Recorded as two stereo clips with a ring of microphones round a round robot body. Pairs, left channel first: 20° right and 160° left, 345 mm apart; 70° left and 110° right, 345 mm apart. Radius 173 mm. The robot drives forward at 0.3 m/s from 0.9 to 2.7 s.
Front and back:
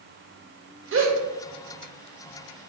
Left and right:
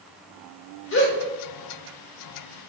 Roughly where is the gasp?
Left.